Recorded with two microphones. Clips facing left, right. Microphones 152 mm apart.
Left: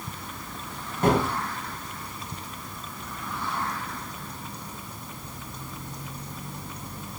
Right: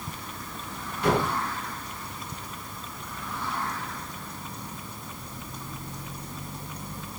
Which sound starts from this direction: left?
A gunshot, at 1.0 s.